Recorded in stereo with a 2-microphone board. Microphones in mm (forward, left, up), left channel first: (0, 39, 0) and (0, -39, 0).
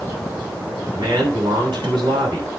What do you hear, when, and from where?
0.9 s a man speaking: 65° right (ahead or behind), 6 m